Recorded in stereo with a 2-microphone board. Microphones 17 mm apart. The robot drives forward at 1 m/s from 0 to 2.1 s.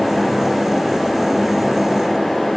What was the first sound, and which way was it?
Only background noise.